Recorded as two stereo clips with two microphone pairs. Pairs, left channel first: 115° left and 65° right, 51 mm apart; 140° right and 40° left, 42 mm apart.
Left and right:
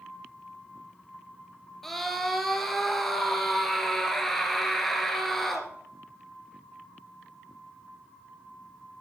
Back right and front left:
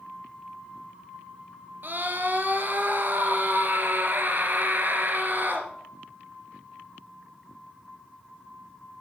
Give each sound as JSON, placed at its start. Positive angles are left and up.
{"t": 1.8, "sound": "a scream", "azimuth_deg": 30, "distance_m": 2.5}